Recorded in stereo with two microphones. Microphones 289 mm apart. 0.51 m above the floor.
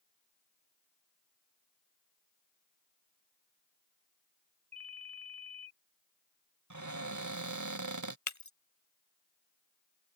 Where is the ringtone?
55° right (ahead or behind).